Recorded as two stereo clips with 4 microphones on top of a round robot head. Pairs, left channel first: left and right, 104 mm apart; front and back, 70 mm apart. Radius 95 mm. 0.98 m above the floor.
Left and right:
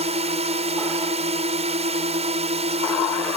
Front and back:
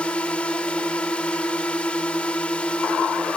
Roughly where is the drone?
Right.